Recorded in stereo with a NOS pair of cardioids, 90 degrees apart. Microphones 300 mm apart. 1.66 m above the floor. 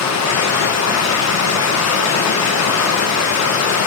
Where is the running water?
65° left, 1.5 m.